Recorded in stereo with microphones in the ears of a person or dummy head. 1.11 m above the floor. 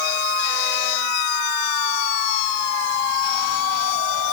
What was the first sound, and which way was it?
Only background noise.